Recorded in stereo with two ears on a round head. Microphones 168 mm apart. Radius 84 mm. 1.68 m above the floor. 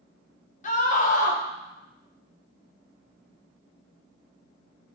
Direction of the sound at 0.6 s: 40° left (ahead or behind).